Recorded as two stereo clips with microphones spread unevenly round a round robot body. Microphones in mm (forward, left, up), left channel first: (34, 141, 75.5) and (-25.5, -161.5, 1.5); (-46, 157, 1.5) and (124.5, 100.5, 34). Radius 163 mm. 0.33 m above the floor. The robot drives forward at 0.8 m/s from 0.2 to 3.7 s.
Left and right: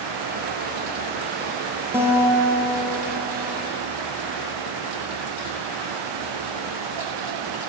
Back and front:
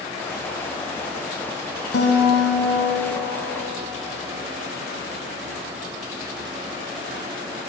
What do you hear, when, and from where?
1.9 s a guitar: straight behind, 4 m